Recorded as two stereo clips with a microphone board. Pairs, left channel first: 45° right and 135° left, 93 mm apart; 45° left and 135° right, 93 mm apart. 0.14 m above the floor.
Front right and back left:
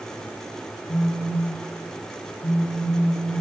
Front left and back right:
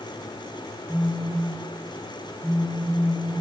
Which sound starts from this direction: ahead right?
A phone buzzing, at 0.9 s.